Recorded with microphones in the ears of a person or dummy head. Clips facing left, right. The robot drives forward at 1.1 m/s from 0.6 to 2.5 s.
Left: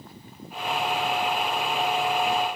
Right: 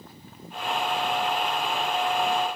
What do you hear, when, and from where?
Only background noise.